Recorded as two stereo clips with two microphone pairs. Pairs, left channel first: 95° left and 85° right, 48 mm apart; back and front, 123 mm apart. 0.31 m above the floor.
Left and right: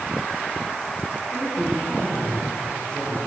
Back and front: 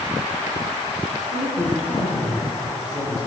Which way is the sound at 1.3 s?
130° left.